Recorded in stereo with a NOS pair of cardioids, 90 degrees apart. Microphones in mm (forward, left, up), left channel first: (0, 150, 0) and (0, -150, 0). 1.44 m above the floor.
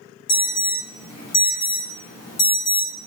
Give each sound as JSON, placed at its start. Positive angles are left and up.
{"t": 0.3, "sound": "an alarm", "azimuth_deg": 65, "distance_m": 1.5}